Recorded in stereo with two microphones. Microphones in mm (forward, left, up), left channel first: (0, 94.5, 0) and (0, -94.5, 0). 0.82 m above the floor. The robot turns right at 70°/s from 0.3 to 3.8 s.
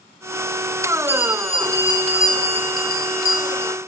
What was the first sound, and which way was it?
A bell, 65° right.